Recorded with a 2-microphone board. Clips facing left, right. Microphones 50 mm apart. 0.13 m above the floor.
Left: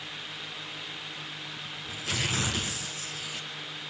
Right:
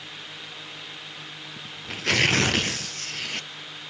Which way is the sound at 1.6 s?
65° right (ahead or behind).